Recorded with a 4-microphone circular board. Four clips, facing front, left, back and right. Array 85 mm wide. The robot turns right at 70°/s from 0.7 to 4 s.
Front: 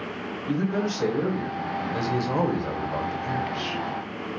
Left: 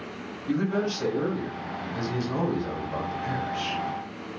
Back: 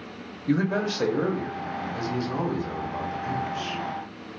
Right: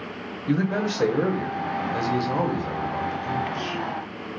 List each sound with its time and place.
0.5 s a man speaking: 140° right, 0.6 m; by 3.8 s 75° left, 0.6 m